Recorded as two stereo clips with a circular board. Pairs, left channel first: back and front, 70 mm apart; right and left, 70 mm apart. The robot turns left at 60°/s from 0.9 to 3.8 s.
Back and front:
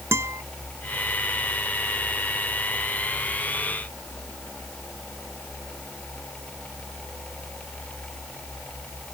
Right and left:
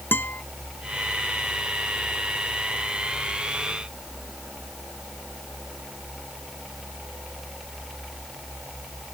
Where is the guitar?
35° right.